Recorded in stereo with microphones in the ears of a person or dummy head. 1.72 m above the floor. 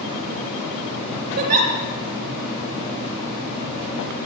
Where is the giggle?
45° right (ahead or behind), 3.5 m.